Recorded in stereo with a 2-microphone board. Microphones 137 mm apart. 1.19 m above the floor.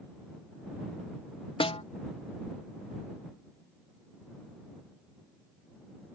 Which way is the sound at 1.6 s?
45° left (ahead or behind).